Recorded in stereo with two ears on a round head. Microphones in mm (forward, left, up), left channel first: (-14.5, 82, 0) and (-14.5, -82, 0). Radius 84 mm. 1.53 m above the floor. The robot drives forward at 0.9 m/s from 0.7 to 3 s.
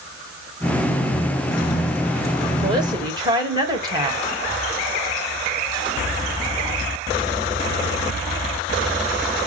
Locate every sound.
2.6 s a woman speaking: 25° right (ahead or behind), 2.5 m